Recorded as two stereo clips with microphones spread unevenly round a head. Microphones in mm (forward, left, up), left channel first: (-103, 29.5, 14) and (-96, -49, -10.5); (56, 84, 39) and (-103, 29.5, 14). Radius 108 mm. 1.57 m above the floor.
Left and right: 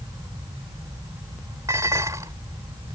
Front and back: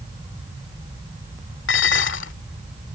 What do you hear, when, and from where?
1.7 s dishes clattering: 5° right